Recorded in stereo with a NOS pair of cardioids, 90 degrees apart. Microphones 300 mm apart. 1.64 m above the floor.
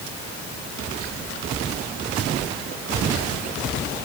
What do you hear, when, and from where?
Only background noise.